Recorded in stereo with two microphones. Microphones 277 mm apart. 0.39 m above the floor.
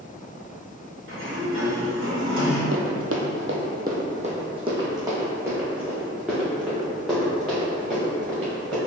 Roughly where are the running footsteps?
Right.